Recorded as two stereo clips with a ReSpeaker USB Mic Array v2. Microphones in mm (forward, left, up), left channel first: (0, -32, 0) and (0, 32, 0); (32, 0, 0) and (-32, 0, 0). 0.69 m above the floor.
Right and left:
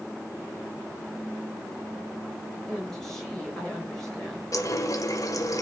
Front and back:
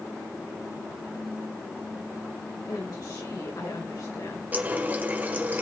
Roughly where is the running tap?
Behind right.